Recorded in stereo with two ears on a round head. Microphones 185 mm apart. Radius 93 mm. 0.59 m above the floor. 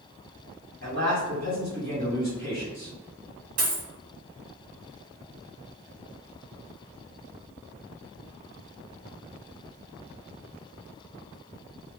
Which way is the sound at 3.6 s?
80° right.